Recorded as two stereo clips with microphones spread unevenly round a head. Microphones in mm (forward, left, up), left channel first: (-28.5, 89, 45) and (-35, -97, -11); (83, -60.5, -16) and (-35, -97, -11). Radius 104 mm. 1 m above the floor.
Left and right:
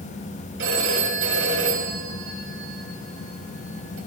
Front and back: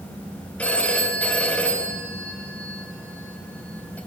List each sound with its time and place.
0.6 s a phone ringing: 60° right, 5 m